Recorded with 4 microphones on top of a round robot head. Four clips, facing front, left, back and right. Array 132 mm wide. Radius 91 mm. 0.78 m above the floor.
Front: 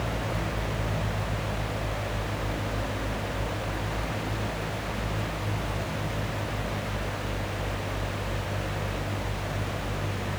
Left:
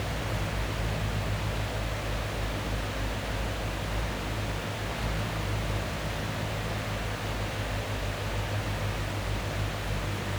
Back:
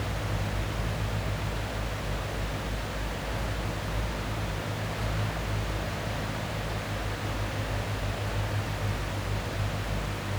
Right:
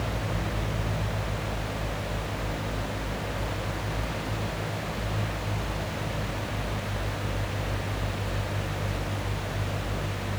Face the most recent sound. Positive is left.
No sound to turn to.